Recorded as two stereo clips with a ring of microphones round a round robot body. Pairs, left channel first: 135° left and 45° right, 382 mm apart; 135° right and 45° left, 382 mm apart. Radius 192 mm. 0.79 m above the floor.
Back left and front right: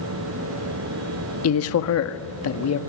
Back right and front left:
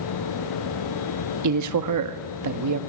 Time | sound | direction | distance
1.4 | a man speaking | 85° left | 1.4 m